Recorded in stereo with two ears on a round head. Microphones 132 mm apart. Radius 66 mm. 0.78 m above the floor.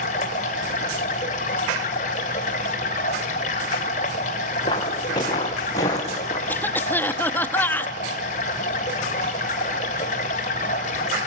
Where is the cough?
15° left (ahead or behind), 0.8 m.